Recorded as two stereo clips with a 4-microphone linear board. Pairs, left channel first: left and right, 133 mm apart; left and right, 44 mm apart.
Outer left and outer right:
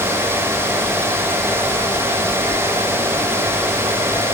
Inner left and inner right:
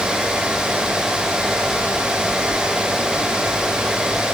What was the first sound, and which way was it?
Only background noise.